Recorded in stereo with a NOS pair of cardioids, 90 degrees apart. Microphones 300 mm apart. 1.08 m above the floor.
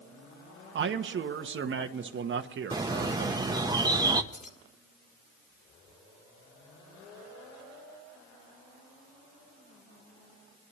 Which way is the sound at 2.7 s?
15° right.